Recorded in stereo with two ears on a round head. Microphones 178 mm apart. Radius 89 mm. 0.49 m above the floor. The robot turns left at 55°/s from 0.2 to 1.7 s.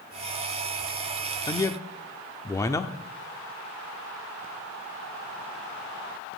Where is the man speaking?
20° left (ahead or behind), 0.8 m; by 3.0 s 15° left (ahead or behind), 0.8 m.